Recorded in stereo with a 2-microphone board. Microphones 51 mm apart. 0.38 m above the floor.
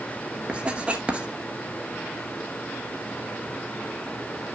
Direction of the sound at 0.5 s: 20° right (ahead or behind).